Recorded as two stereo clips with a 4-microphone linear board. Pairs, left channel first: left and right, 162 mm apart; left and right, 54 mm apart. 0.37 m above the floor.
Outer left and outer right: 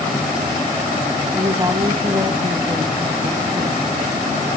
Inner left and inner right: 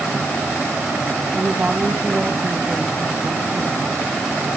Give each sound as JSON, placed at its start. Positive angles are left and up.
{"t": 1.3, "sound": "a woman speaking", "side_deg": -20, "distance_m": 2.5}